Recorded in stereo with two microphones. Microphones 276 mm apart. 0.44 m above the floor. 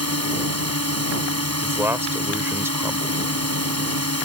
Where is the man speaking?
10° right (ahead or behind).